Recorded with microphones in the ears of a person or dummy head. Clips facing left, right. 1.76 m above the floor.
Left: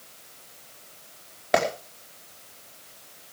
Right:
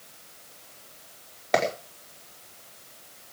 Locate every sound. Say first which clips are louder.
1.5 s a clap: left 1 dB; 10° left (ahead or behind), 4.5 m